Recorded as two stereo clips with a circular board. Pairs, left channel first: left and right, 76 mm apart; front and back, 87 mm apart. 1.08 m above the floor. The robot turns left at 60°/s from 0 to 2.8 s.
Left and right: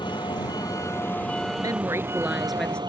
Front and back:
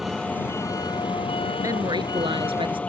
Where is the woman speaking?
125° right; by 2.8 s 165° left.